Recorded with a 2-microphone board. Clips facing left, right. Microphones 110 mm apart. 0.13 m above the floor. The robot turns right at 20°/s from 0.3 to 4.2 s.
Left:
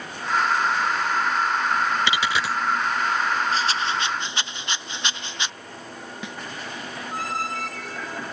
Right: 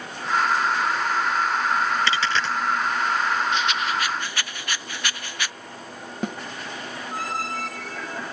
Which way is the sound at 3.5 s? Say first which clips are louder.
Even; 35° left (ahead or behind).